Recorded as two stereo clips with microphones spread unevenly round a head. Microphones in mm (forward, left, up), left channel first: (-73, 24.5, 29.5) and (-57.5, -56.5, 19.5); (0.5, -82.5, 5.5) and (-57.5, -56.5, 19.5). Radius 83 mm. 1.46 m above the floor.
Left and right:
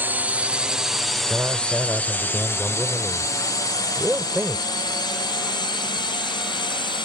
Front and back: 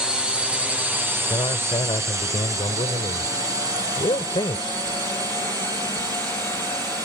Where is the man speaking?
5° left.